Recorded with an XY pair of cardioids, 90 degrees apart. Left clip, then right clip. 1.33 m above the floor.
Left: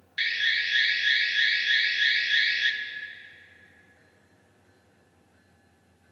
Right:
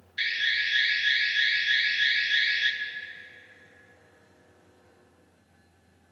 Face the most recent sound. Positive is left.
turn(degrees=10)